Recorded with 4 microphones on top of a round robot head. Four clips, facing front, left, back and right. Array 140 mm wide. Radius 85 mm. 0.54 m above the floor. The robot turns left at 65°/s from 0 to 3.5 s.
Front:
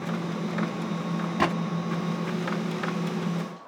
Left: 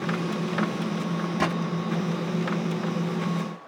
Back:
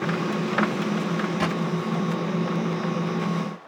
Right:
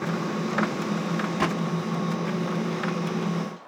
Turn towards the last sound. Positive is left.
turn(degrees=-125)